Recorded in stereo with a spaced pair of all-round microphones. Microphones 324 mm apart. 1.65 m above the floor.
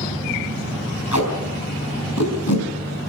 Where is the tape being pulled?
65° left (ahead or behind), 4.5 m.